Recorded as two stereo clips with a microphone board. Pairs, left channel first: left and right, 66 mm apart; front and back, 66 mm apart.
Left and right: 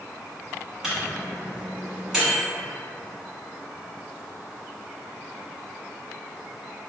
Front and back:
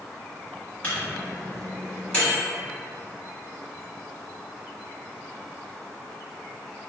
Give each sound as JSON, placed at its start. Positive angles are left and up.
{"t": 0.8, "sound": "a microwave", "azimuth_deg": -20, "distance_m": 1.1}